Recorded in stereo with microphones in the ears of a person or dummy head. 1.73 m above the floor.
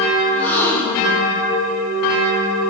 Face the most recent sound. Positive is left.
turn(degrees=10)  # may be behind; listen again after turning